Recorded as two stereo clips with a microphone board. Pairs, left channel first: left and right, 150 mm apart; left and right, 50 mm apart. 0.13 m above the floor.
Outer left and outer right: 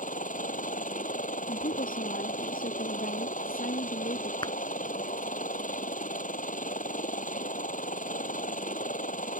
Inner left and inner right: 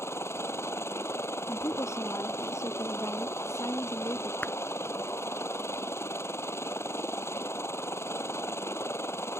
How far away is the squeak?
No squeak in this recording.